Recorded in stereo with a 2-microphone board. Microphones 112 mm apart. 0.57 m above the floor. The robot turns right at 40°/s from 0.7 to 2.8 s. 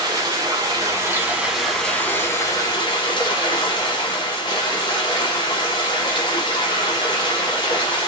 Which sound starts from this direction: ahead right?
Running water, at 0.0 s.